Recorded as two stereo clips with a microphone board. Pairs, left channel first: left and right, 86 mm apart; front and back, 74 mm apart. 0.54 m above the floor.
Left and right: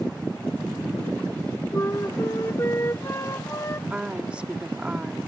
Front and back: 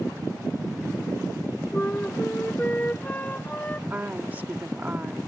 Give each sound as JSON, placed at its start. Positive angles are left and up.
{"t": 1.7, "sound": "a flute", "azimuth_deg": 55}
{"t": 3.9, "sound": "a woman speaking", "azimuth_deg": -150}